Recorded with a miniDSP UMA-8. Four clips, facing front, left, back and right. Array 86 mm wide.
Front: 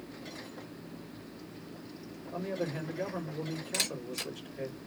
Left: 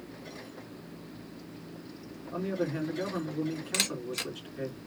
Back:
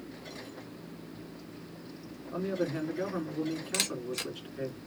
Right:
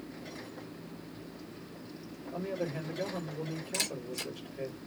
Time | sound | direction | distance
2.3 | a man speaking | 135° left | 3.5 m
3.7 | a camera shutter | 115° left | 2.0 m